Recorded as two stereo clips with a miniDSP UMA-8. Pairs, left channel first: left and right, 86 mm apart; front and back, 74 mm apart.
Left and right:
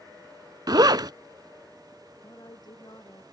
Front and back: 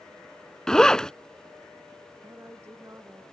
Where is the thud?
No thud in this recording.